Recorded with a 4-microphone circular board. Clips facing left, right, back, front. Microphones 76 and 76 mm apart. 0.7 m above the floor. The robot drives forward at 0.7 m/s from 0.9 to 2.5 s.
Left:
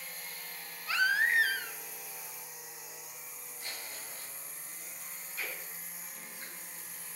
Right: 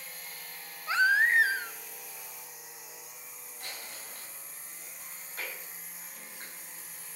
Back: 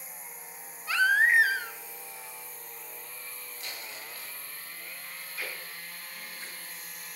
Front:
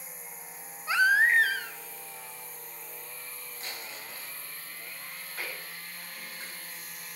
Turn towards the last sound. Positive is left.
turn(degrees=-45)